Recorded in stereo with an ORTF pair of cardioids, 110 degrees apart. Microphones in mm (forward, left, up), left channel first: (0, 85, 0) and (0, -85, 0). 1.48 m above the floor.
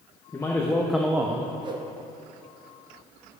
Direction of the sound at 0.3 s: 20° left.